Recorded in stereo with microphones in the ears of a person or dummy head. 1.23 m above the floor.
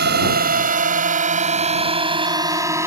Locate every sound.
0.0 s a drone: 55° right (ahead or behind); by 2.9 s 20° right (ahead or behind)